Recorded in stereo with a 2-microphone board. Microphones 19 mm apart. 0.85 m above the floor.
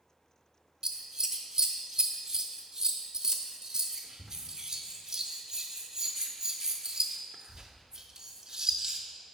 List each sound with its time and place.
0.8 s scissors: 35° right (ahead or behind), 0.6 m